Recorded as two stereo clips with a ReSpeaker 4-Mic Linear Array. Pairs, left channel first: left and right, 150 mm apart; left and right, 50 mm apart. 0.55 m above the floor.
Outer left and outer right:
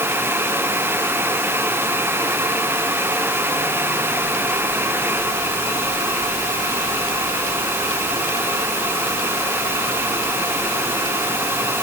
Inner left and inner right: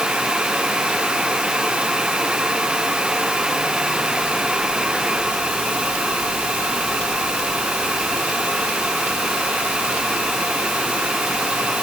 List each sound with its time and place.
Only background noise.